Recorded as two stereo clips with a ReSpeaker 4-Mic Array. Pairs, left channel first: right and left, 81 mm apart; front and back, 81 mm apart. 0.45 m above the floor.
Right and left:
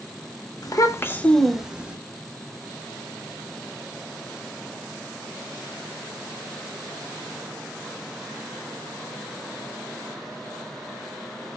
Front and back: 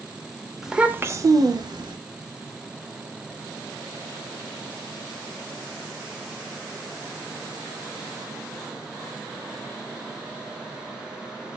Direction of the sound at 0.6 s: 95° right.